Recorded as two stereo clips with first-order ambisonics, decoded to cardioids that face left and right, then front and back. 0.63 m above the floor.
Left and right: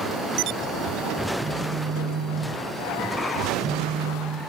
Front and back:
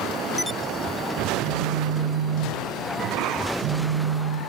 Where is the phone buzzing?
160° right, 3 m.